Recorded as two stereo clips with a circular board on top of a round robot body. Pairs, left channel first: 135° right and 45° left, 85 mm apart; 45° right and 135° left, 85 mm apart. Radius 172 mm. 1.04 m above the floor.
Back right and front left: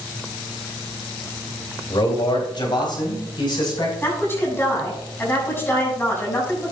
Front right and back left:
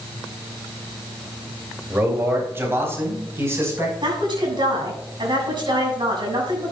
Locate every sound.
1.9 s a man speaking: 160° right, 3 m; by 3.9 s 165° right, 5.5 m
4.0 s a woman speaking: 160° left, 6.5 m